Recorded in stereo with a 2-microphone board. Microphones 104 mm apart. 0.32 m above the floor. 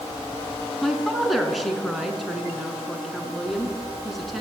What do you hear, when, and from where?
0.8 s a woman speaking: centre (ahead or behind), 4 m